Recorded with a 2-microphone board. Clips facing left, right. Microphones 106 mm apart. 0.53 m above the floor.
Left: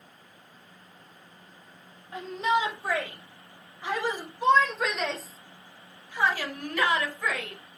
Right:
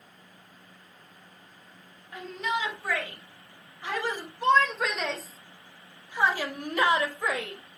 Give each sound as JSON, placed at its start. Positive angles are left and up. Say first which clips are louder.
{"t": 2.1, "sound": "a shout", "louder": "left 5 dB", "side_deg": 30, "distance_m": 3.5}